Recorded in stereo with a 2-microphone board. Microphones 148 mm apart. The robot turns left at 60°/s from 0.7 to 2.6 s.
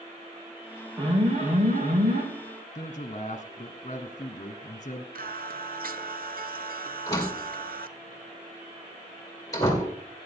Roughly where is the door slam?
Left.